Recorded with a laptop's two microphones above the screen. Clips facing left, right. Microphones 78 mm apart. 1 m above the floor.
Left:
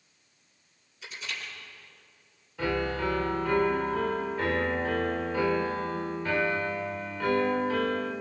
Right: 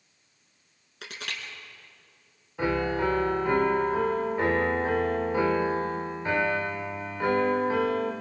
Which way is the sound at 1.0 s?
85° right.